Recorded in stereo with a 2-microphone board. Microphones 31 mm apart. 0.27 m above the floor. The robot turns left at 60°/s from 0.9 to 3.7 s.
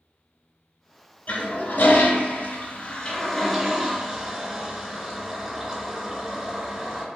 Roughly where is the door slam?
I don't hear a door slam.